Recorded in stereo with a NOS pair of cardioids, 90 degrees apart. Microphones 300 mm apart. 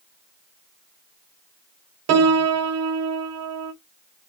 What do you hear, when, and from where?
2.1 s a piano: 50° right, 0.6 m